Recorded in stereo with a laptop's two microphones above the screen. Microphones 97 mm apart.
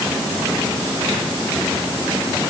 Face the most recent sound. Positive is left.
No sound to turn to.